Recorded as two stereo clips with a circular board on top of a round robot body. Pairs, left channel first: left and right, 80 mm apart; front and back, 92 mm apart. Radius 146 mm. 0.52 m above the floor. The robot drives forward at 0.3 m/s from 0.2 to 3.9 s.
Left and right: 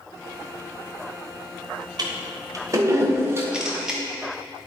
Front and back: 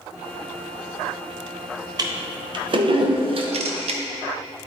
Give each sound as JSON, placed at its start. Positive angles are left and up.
{"t": 2.0, "sound": "a toilet flushing", "azimuth_deg": -130, "distance_m": 0.6}
{"t": 3.5, "sound": "a camera shutter", "azimuth_deg": -170, "distance_m": 0.5}